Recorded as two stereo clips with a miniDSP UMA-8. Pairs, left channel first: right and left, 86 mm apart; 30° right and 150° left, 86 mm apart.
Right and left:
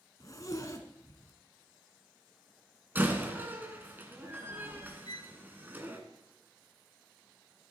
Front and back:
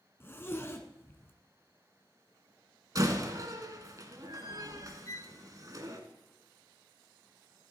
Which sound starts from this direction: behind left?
A door slam, at 3.0 s.